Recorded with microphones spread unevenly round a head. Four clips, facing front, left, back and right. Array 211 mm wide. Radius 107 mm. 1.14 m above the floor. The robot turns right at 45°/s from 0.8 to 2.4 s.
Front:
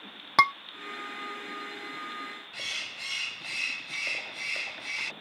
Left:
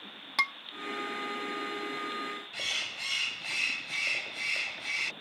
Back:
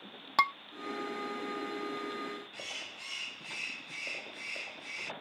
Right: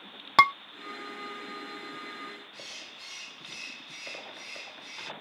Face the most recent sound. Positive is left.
turn(degrees=65)